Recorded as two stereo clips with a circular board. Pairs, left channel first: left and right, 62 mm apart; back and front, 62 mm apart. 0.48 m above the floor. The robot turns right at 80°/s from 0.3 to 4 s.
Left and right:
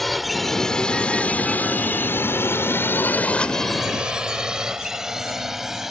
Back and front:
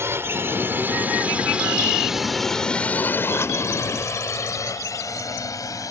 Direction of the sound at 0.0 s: 5° left.